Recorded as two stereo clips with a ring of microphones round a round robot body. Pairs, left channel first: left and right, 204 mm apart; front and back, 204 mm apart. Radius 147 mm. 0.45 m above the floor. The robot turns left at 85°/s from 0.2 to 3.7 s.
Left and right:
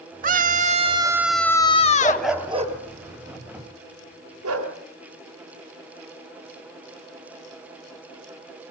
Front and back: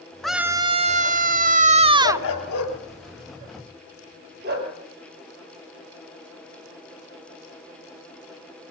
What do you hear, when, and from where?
0.2 s a scream: 85° right, 1.2 m; by 2.3 s 100° left, 1.2 m
2.0 s a dog barking: 20° left, 2.5 m; by 4.7 s 120° right, 2.5 m